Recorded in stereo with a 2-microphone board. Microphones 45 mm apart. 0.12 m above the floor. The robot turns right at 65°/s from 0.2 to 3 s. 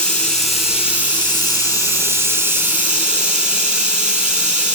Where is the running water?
155° left, 2 m; by 4.8 s 20° right, 2 m.